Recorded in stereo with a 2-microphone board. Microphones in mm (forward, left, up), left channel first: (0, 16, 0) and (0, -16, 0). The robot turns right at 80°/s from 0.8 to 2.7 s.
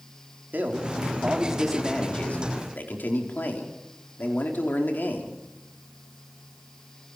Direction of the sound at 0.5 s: 75° right.